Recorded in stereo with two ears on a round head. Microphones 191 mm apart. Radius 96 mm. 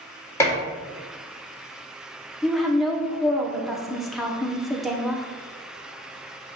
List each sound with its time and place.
0.4 s dishes clattering: 15° left (ahead or behind), 1.7 m
2.4 s a woman speaking: centre (ahead or behind), 1.0 m